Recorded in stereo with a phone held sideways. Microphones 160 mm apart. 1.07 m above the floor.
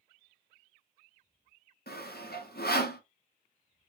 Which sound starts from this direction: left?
Sawing, at 1.9 s.